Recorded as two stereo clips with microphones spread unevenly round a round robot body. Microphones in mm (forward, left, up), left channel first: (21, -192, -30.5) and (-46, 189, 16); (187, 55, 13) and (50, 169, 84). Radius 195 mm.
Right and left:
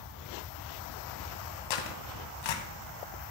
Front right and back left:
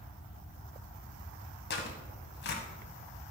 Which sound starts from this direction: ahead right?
Tearing paper, at 1.7 s.